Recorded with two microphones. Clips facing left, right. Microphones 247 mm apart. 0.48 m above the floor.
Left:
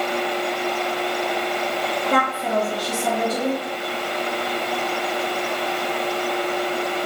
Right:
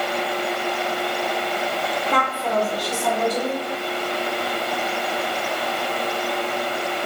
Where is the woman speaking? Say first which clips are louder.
Left 2 dB; 45° left (ahead or behind), 1.5 m.